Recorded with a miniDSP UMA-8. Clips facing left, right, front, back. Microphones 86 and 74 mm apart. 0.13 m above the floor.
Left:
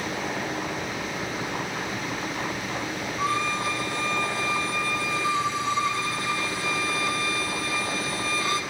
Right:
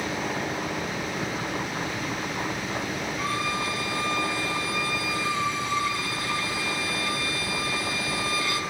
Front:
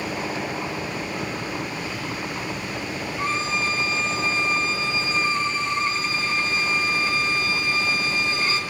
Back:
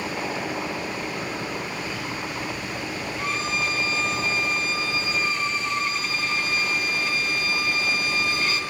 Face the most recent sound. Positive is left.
turn(degrees=40)